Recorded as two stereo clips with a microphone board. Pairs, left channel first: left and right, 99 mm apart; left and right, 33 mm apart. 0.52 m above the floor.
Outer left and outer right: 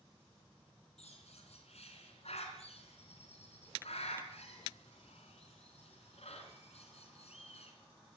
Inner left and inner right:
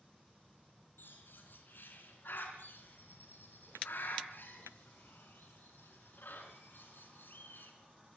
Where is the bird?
80° left, 4 m.